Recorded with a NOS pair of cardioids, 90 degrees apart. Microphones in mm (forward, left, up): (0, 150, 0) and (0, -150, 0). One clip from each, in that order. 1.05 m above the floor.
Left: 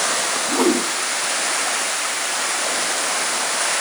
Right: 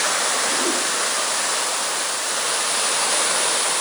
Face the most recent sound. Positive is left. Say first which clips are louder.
# left 3 dB
turn(degrees=70)